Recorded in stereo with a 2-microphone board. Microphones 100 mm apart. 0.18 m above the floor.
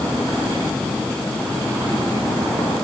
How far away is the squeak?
No squeak in this recording.